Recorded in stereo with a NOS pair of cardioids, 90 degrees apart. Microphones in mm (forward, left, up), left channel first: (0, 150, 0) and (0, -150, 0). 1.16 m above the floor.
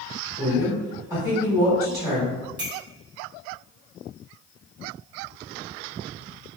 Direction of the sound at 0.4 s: 5° right.